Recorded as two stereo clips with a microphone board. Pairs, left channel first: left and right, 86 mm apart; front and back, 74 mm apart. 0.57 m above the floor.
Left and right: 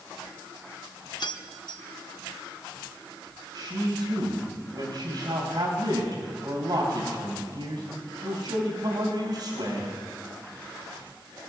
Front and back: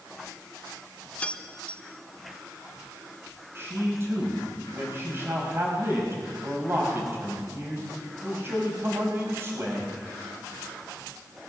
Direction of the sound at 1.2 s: 70° left.